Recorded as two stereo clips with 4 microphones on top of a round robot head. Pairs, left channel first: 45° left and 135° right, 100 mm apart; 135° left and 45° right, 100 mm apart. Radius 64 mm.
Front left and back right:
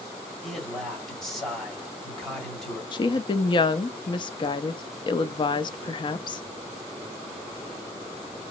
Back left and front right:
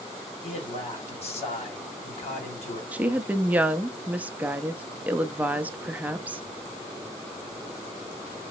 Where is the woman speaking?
30° left, 0.5 m.